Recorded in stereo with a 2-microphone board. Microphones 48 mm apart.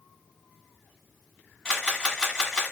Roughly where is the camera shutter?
Centre.